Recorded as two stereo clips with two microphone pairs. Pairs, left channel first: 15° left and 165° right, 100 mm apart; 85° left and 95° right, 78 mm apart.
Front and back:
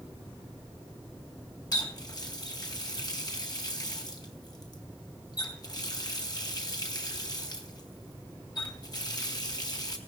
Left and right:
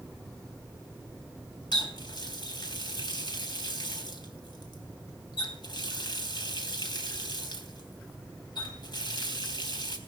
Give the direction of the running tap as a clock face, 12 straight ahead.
10 o'clock.